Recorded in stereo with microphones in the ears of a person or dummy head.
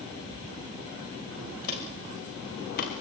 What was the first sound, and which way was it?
Footsteps, 50° left (ahead or behind).